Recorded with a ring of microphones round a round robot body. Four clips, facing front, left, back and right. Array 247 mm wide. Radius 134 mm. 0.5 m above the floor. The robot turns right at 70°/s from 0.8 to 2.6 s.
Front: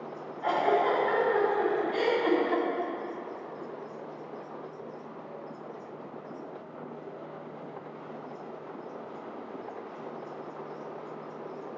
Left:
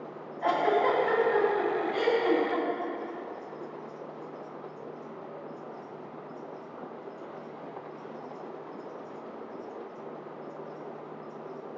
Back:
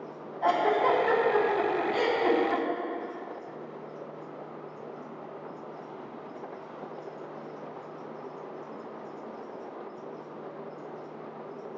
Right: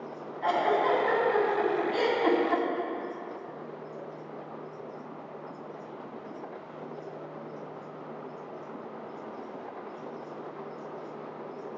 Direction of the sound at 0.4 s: 160° left.